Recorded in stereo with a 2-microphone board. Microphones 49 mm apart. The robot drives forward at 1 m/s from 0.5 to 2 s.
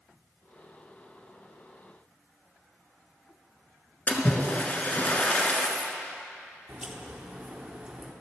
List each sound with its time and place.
4.1 s a splash: 30° left (ahead or behind), 0.9 m
6.7 s a crack: 25° right (ahead or behind), 0.9 m